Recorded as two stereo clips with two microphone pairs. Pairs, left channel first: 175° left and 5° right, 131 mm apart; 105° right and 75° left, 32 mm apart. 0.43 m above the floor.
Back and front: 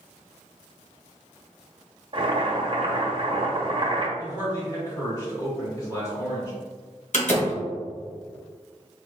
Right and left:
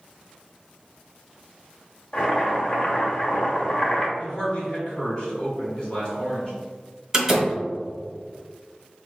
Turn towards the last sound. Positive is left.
turn(degrees=145)